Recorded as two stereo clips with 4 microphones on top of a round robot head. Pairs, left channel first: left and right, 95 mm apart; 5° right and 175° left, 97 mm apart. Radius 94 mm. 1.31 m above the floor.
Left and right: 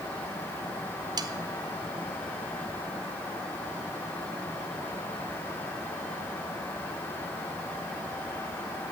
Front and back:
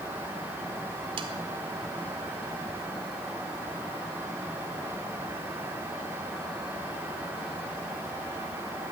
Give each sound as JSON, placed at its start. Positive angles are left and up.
{"t": 1.2, "sound": "sawing", "azimuth_deg": -135, "distance_m": 1.6}